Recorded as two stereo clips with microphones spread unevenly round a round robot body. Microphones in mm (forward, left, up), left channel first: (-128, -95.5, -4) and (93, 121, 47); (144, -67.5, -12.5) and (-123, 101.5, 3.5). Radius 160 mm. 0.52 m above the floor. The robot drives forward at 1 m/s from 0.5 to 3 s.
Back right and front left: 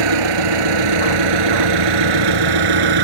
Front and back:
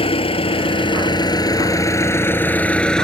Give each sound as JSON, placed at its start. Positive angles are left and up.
{"t": 0.0, "sound": "an engine running", "azimuth_deg": 40}